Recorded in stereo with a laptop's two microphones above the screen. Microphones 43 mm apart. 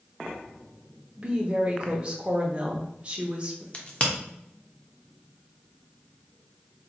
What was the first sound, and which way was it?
A woman speaking, 25° right (ahead or behind).